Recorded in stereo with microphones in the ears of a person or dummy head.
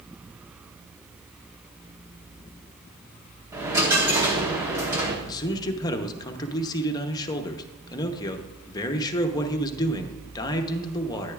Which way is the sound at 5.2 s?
25° left (ahead or behind).